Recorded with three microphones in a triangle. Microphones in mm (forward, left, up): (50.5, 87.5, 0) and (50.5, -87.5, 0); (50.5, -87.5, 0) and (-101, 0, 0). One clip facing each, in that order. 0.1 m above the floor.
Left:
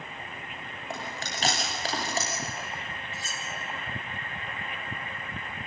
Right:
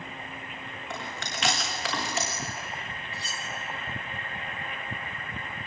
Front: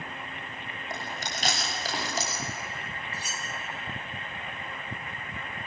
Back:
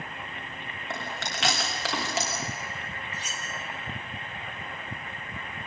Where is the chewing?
145° left, 5 m.